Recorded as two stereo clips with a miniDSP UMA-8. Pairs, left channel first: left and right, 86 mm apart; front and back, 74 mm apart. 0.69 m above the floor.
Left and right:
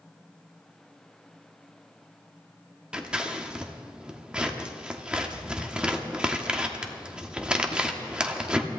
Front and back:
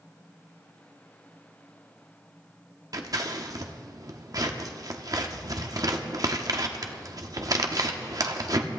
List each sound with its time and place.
2.9 s scissors: 165° right, 1.3 m